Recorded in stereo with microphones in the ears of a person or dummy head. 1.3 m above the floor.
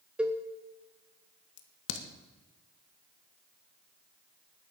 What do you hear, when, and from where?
0.2 s a cowbell: 10° right (ahead or behind), 1.1 m
1.6 s a crack: 75° left (ahead or behind), 1.9 m